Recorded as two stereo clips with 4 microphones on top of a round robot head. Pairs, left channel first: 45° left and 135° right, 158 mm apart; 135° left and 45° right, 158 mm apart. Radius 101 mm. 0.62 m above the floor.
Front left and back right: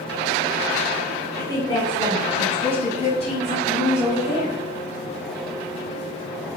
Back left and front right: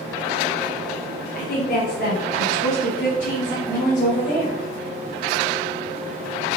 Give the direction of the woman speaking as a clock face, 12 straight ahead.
8 o'clock.